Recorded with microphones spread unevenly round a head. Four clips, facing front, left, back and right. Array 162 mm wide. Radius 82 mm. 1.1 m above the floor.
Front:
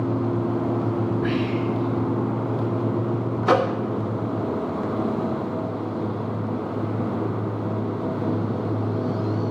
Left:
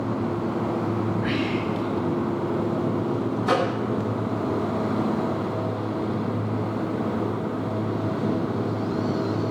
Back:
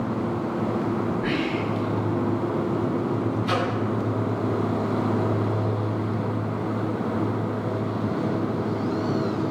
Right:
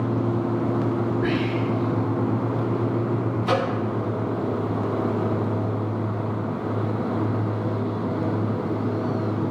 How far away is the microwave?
About 1.1 m.